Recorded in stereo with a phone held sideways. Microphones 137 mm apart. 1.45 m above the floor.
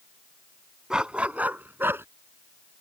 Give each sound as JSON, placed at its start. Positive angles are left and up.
{"t": 0.9, "sound": "a dog barking", "side_deg": -5}